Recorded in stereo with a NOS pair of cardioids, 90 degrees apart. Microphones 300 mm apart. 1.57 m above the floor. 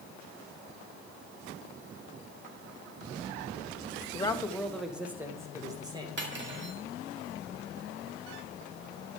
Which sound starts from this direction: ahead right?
Cutlery clinking, at 6.2 s.